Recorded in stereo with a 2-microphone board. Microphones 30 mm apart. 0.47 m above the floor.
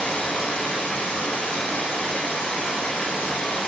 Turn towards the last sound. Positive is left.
turn(degrees=85)